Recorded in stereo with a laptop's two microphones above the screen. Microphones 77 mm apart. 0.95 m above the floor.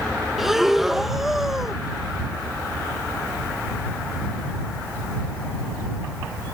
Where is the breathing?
5° right (ahead or behind).